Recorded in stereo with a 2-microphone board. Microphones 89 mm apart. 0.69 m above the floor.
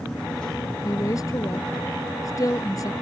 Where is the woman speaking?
40° left (ahead or behind).